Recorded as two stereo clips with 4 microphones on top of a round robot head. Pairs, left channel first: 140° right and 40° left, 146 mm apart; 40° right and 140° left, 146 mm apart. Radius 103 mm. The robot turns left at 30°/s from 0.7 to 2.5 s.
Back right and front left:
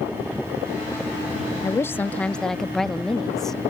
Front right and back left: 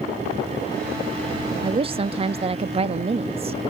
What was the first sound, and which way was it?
A woman speaking, 160° left.